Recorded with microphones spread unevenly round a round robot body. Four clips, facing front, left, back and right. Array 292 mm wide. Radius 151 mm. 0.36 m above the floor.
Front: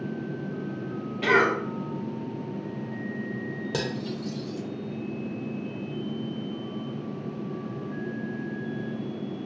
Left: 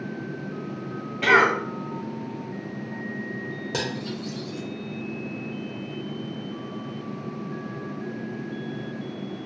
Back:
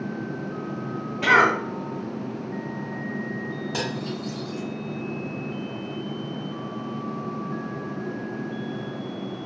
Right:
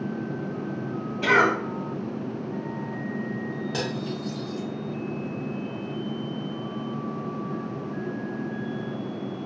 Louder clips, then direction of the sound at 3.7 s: Right 1 dB, even; 25° left.